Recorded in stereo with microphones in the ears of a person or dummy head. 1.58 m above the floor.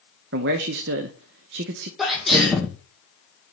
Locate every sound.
0.3 s a man speaking: 60° right (ahead or behind), 0.8 m
2.0 s a sneeze: centre (ahead or behind), 1.2 m